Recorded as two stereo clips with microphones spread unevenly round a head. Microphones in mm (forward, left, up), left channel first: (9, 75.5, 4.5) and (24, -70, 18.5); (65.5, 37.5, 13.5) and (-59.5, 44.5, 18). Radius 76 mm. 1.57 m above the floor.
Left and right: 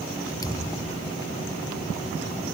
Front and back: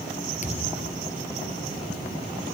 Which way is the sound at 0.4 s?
30° left.